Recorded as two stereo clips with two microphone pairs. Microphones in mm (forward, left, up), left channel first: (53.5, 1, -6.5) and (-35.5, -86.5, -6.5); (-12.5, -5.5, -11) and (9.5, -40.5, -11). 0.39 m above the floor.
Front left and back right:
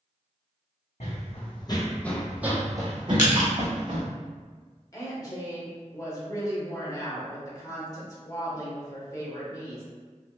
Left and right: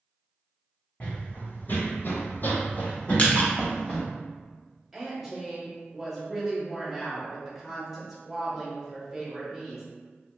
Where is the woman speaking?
15° left, 0.9 m.